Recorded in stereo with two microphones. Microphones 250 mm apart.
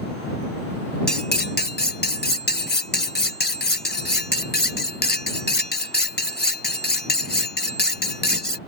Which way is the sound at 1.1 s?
40° left (ahead or behind).